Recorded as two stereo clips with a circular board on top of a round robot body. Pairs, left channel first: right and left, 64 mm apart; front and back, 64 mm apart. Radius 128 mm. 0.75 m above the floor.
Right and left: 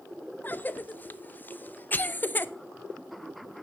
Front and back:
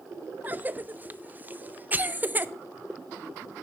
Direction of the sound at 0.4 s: 135° right.